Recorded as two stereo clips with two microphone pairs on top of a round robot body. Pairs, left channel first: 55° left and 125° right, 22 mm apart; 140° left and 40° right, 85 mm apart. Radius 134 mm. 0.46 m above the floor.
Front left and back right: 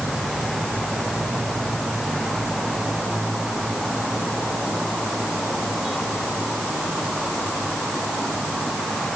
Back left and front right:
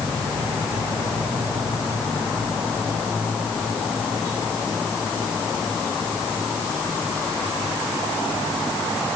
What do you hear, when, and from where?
Only background noise.